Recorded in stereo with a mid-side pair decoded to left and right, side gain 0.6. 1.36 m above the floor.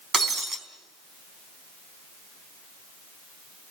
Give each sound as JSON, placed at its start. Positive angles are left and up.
{"t": 0.1, "sound": "breaking glass", "azimuth_deg": -30, "distance_m": 4.0}